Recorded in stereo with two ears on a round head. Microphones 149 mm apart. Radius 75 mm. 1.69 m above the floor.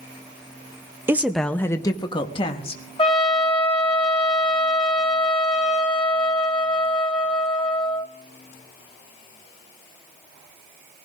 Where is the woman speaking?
15° right (ahead or behind), 0.6 m; by 2.8 s 35° left (ahead or behind), 1.5 m.